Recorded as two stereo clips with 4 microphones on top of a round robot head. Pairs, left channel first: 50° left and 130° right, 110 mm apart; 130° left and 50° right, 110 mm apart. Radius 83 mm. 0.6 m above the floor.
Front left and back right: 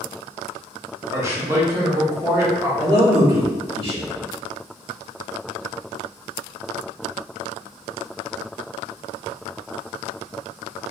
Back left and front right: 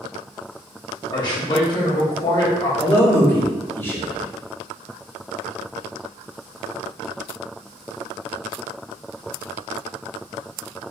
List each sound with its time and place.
1.1 s a man speaking: 170° left, 1.3 m
2.8 s a man speaking: 160° right, 1.9 m